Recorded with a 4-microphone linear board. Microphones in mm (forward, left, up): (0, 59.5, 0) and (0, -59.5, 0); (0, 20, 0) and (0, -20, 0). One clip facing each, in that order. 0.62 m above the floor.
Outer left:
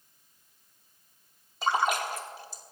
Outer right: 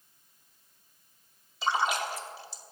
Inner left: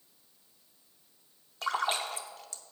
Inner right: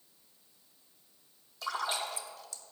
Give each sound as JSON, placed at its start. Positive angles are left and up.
{"t": 1.6, "sound": "a splash", "side_deg": 45, "distance_m": 0.9}